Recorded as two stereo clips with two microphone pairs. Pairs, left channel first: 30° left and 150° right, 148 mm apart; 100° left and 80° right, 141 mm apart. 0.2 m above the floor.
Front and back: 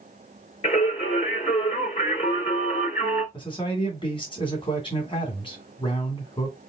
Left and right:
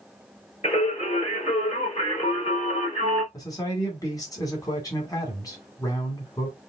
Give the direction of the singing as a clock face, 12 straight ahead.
10 o'clock.